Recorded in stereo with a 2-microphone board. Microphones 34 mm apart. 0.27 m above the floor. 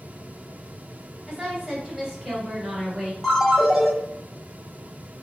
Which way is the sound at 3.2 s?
5° right (ahead or behind).